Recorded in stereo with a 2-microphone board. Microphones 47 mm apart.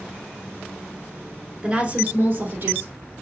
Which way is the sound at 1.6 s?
20° right (ahead or behind).